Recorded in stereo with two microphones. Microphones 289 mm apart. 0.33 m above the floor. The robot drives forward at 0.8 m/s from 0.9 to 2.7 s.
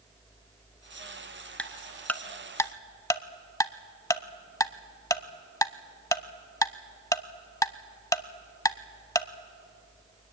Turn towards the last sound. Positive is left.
turn(degrees=10)  # may be behind; listen again after turning